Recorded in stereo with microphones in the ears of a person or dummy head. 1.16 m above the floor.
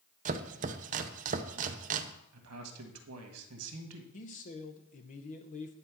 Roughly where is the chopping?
Right.